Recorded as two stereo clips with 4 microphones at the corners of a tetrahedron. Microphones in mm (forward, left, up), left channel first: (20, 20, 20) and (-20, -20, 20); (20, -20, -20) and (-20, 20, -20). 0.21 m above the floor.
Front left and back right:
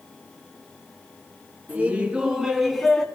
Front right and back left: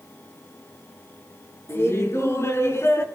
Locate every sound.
1.7 s laughter: 75° right, 3.5 m; by 3.1 s 35° right, 2.5 m